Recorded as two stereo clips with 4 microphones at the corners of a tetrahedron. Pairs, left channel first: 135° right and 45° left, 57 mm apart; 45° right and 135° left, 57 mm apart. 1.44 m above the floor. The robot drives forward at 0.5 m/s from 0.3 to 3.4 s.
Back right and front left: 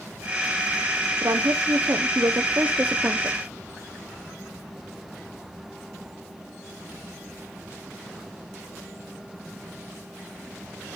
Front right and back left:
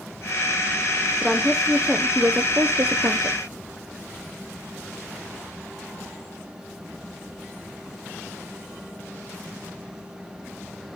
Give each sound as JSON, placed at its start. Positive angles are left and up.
{"t": 1.2, "sound": "a woman speaking", "azimuth_deg": 50, "distance_m": 1.1}